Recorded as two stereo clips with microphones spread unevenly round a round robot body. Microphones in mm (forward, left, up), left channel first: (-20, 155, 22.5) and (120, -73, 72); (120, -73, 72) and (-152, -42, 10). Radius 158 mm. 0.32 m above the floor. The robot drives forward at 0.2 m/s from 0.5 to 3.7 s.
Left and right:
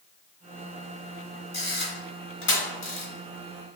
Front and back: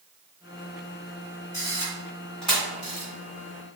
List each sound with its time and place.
1.5 s a camera shutter: 80° left, 1.1 m; by 3.1 s 95° left, 1.1 m